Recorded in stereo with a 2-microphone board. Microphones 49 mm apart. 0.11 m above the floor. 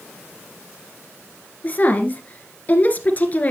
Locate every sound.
1.6 s a woman speaking: 30° left (ahead or behind), 1.4 m